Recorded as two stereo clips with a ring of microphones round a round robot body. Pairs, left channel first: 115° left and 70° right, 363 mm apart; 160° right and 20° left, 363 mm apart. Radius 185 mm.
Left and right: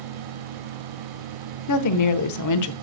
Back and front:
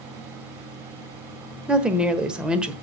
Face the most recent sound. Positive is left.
turn(degrees=110)